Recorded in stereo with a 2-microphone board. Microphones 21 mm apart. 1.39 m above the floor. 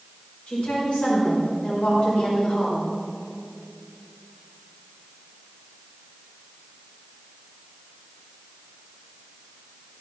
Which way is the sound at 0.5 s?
70° left (ahead or behind).